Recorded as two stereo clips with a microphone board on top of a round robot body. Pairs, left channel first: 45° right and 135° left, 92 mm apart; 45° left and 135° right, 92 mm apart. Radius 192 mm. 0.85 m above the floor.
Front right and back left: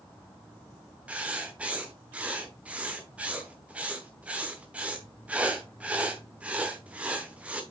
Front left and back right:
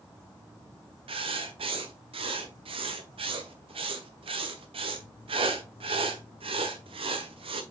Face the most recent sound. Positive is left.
turn(degrees=-150)